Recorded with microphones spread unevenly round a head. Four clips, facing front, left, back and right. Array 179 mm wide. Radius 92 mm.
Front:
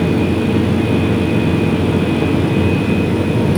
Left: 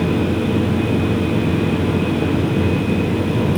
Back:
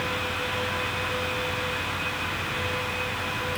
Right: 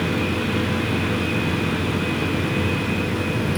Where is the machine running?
20° left.